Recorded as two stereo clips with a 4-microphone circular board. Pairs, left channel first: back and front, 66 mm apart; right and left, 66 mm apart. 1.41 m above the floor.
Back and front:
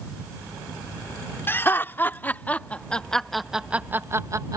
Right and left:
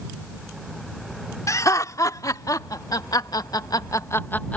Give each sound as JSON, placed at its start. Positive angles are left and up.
{"t": 1.5, "sound": "laughter", "azimuth_deg": -125}